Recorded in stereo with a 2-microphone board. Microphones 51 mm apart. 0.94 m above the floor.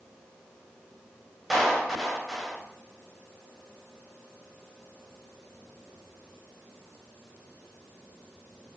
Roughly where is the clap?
Centre.